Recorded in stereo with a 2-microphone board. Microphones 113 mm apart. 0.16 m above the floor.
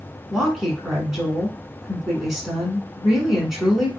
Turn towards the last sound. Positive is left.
turn(degrees=-5)  # may be behind; listen again after turning